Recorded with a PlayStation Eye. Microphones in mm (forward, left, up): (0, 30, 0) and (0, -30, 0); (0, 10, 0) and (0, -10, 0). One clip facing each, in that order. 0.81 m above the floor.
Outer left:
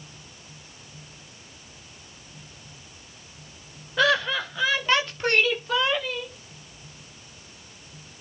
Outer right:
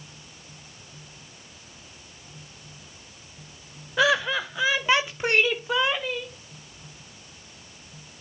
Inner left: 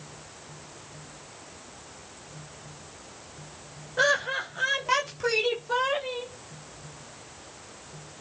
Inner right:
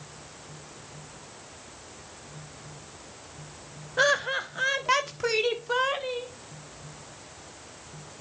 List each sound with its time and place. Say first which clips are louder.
4.0 s laughter: even, even; 5° right (ahead or behind), 1.0 m; by 6.3 s 15° right (ahead or behind), 2 m